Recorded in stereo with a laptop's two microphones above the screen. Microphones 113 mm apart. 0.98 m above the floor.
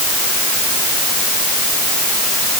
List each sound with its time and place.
Only background noise.